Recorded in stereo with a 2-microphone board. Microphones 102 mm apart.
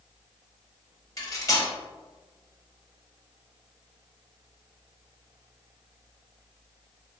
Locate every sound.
1.2 s cutlery clinking: 35° left (ahead or behind), 0.9 m